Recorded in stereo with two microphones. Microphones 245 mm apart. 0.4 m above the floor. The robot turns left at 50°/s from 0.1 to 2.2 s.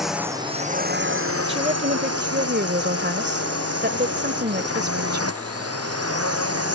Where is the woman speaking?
25° right (ahead or behind); by 5.4 s 45° right (ahead or behind).